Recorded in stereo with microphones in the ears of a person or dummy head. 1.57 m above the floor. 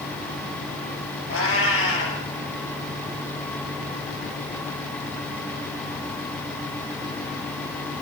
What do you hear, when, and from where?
1.3 s a cat meowing: 70° left (ahead or behind), 4.5 m